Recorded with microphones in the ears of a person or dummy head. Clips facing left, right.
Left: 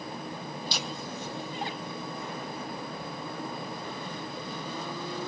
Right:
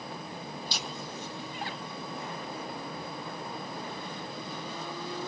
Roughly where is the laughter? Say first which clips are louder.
Left 3 dB; left.